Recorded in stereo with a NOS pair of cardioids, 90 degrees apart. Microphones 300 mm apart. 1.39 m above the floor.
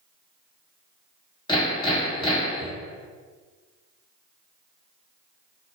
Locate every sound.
1.5 s hammering: 15° left, 1.4 m